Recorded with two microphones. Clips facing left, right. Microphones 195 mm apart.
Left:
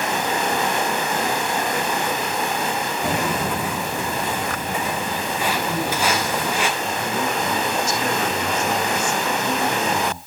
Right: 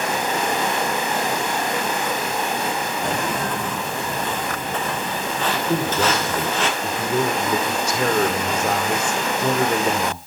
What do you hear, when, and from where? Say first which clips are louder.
3.0 s footsteps: left 2 dB; 5° left (ahead or behind), 1.2 m; by 6.7 s 10° left (ahead or behind), 5.5 m
5.7 s a man speaking: right 2 dB; 65° right (ahead or behind), 4.5 m